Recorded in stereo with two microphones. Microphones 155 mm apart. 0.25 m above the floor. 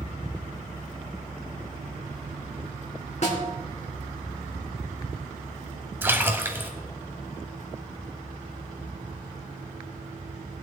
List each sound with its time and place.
3.2 s a snare drum: 50° left (ahead or behind), 3.5 m
6.0 s a splash: 15° right (ahead or behind), 1.4 m